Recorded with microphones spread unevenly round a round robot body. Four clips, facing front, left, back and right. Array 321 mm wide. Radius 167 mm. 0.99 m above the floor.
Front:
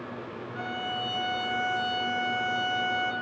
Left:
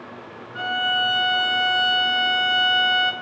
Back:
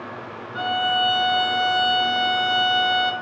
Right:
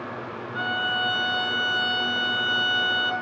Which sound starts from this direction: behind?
A violin, at 0.6 s.